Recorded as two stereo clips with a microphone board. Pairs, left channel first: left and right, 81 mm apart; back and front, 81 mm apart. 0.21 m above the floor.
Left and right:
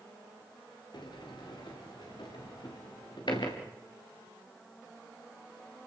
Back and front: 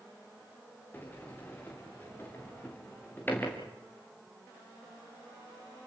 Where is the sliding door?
115° left, 5 m.